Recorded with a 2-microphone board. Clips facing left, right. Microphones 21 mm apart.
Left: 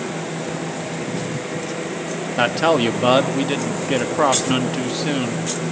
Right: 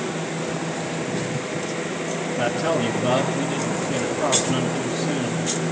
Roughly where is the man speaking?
Left.